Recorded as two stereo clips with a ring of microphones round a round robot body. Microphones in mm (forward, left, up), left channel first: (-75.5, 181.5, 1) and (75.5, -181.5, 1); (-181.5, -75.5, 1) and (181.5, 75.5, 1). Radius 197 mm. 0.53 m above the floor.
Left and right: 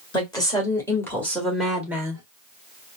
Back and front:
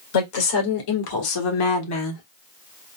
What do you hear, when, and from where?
0.1 s a woman speaking: 170° right, 2 m; by 2.2 s 140° right, 1.1 m